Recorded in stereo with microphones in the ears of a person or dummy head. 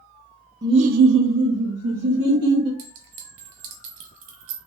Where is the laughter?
15° right (ahead or behind), 0.5 m; by 2.7 s 45° right (ahead or behind), 1.8 m.